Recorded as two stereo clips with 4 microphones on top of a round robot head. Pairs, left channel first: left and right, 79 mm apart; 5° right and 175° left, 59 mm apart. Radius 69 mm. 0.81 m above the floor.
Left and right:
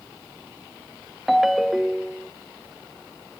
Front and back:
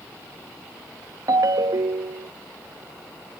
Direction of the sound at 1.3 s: Straight behind.